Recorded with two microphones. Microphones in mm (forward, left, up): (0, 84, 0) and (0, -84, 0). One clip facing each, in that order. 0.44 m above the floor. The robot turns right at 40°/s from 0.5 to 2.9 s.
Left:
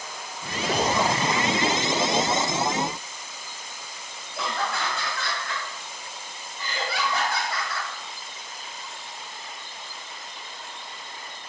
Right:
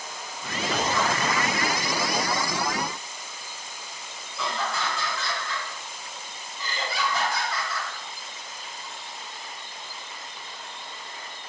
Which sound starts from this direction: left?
Laughter, at 4.3 s.